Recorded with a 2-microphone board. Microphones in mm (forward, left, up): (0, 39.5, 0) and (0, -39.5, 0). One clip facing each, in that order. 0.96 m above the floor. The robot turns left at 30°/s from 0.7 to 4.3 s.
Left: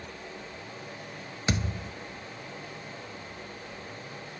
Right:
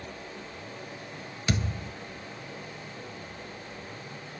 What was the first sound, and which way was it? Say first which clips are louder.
A thud: even; 25° left (ahead or behind).